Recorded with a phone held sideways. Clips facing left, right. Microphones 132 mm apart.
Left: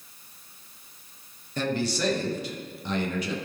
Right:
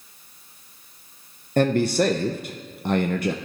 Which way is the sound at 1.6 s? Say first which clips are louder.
Right 8 dB; 55° right (ahead or behind).